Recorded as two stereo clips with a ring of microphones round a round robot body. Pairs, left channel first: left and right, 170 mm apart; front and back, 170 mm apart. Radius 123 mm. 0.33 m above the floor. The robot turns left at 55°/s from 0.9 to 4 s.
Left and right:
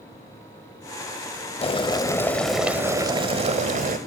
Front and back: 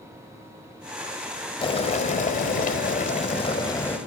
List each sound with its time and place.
1.6 s boiling: 50° left, 1.3 m; by 4.0 s 80° right, 1.3 m